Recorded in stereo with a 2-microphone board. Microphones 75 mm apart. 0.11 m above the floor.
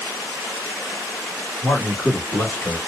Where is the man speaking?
5° right (ahead or behind), 1.4 m; by 2.8 s 30° left (ahead or behind), 1.4 m.